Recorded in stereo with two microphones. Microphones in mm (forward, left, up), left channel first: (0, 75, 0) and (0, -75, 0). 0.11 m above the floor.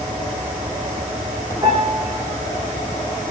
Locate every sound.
1.6 s a piano: 20° right (ahead or behind), 5.5 m